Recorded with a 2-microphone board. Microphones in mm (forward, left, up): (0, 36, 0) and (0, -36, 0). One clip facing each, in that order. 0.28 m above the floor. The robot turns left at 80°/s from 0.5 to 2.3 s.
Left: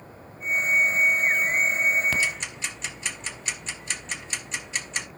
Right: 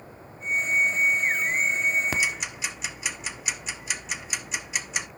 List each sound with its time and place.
2.1 s ticking: 20° right (ahead or behind), 0.9 m; by 5.1 s 10° right (ahead or behind), 0.9 m